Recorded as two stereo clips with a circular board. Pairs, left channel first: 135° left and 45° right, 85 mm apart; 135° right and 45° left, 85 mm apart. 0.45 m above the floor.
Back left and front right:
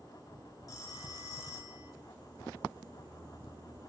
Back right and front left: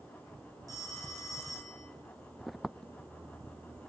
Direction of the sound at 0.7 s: 90° left.